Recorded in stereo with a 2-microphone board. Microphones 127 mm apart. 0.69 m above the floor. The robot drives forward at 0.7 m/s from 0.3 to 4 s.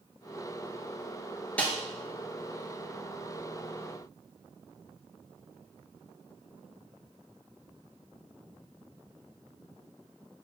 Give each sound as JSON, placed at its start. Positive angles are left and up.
{"t": 1.6, "sound": "a snare drum", "side_deg": 10, "distance_m": 2.5}